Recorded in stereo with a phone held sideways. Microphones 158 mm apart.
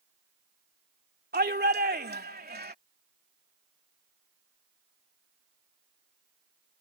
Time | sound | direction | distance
1.3 | a shout | 80° right | ?